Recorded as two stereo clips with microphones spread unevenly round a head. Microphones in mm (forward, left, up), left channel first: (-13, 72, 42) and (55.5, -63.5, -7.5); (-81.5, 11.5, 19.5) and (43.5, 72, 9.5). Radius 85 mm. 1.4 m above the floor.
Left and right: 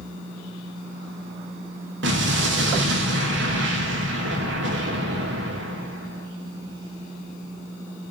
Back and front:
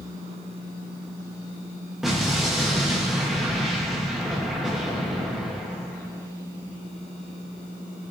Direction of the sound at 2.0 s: 65° right.